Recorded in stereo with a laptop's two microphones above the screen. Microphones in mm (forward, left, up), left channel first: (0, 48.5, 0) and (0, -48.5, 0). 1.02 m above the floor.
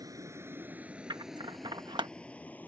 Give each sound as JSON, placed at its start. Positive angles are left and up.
{"t": 0.0, "sound": "a vehicle", "side_deg": -35}
{"t": 1.1, "sound": "scissors", "side_deg": -45}